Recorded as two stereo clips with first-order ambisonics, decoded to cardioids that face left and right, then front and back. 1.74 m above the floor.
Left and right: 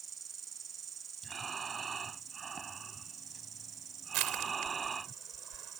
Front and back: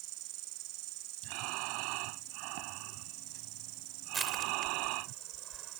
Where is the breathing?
165° right.